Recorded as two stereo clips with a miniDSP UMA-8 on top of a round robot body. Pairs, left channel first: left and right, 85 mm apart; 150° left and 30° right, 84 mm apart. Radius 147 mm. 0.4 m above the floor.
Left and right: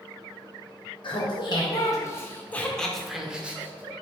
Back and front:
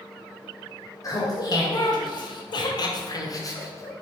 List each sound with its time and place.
1.0 s laughter: 110° left, 1.8 m; by 4.0 s 155° right, 1.9 m